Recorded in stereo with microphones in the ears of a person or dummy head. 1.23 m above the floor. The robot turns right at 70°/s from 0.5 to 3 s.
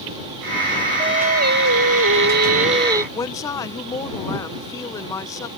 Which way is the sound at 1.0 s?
155° right.